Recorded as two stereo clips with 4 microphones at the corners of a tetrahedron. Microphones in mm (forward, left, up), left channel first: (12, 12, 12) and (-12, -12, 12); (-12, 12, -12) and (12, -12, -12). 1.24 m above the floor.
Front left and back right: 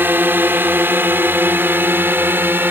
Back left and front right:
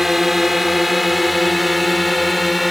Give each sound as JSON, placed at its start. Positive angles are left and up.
{"t": 0.0, "sound": "a drone", "azimuth_deg": -130}